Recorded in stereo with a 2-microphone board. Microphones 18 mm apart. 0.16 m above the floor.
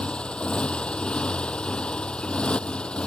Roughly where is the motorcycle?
Left.